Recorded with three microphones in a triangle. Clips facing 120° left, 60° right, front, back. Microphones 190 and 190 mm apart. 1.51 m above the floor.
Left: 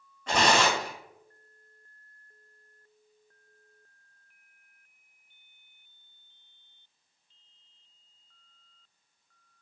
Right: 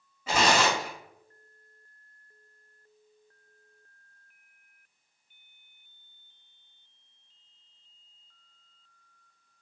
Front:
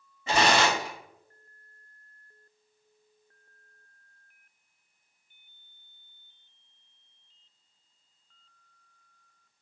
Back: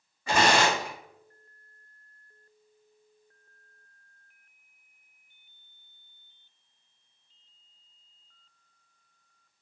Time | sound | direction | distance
0.3 | tearing paper | 10° left | 1.3 m